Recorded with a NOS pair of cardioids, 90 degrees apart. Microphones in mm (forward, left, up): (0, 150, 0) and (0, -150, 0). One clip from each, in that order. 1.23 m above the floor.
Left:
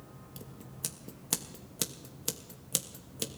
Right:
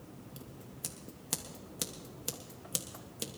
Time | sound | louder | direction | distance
0.4 | scissors | left 4 dB | 25° left | 1.3 m